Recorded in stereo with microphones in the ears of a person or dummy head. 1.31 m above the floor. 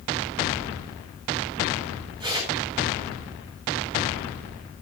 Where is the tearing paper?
20° right (ahead or behind), 5.5 m.